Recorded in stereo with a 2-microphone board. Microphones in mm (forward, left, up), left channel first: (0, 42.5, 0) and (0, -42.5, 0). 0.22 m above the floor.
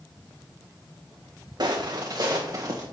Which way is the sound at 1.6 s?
55° right (ahead or behind).